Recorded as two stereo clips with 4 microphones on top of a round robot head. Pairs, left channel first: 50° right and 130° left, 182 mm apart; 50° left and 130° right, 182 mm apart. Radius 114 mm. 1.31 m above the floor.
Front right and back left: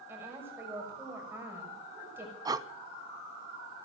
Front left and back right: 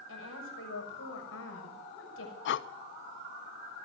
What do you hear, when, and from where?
0.1 s a woman speaking: 50° left, 6 m
2.5 s breathing: 60° left, 0.6 m